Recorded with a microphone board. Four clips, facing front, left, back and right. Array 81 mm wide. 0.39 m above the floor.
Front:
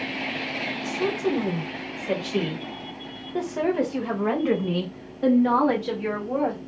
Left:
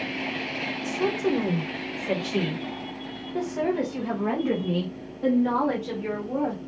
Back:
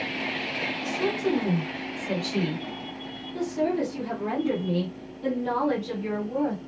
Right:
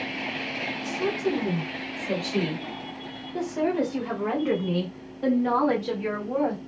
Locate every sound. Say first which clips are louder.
0.8 s a woman speaking: left 2 dB, front 1 dB; 85° left, 1.7 m; by 6.6 s 25° right, 3 m